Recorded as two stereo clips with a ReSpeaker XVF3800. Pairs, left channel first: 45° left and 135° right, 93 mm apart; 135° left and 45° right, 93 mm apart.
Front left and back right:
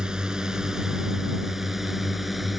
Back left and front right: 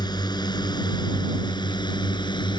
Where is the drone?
145° left; by 2.6 s 135° left.